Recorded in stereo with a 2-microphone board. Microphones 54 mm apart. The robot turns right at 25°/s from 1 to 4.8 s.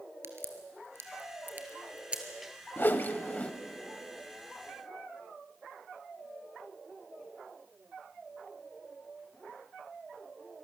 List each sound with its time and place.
0.2 s a crack: 45° right (ahead or behind), 2 m; by 2.2 s 15° right (ahead or behind), 2 m
2.8 s a whoosh: 40° left (ahead or behind), 0.8 m; by 3.5 s 25° left (ahead or behind), 0.8 m